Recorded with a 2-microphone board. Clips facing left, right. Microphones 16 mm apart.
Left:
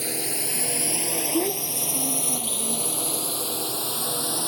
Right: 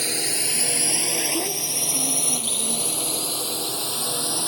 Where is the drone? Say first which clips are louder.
Right 4 dB; 40° right (ahead or behind); by 4.5 s 20° right (ahead or behind).